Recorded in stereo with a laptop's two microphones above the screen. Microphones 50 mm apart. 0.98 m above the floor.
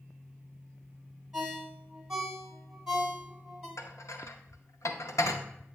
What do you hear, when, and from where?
1.3 s a ringtone: 15° right (ahead or behind), 2.5 m
3.8 s dishes clattering: 80° left, 0.6 m